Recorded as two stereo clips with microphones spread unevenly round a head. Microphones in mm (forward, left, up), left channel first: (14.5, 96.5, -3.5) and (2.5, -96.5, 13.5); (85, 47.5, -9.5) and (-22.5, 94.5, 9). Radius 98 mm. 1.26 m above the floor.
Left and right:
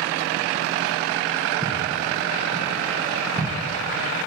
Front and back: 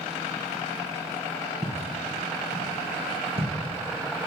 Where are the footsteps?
150° right, 2.5 m; by 3.5 s straight behind, 2.5 m.